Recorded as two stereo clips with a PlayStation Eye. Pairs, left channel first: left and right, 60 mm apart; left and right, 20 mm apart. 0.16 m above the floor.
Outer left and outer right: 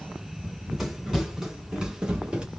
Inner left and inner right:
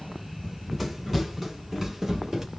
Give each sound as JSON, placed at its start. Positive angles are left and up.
{"t": 0.4, "sound": "running footsteps", "side_deg": -5, "distance_m": 2.5}